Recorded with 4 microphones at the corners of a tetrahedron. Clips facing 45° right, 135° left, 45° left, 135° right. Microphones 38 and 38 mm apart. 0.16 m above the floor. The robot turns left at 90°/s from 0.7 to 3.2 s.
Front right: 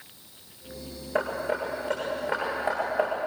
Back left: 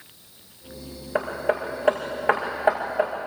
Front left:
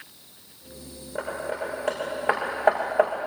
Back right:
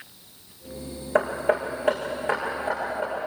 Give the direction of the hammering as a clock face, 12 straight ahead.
5 o'clock.